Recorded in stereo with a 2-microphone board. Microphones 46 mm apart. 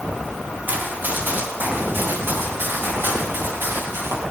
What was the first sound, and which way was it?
Running footsteps, 45° right (ahead or behind).